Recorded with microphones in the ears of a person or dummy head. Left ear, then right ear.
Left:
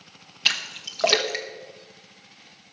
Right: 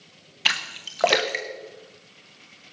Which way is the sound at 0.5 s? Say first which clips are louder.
Even; 10° right (ahead or behind).